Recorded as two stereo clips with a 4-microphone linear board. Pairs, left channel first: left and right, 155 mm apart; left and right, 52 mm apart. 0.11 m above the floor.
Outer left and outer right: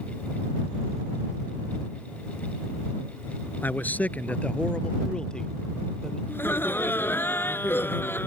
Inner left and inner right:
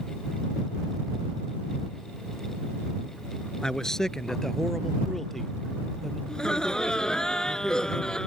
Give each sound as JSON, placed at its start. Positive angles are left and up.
{"t": 3.6, "sound": "a man speaking", "side_deg": 15}
{"t": 6.3, "sound": "laughter", "side_deg": 15}